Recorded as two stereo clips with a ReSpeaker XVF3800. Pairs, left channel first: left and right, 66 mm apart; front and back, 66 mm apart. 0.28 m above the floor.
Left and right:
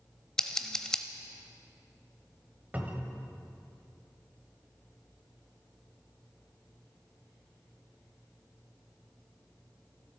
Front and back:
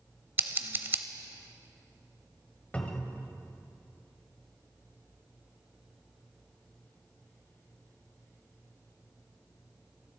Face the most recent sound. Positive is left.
turn(degrees=-50)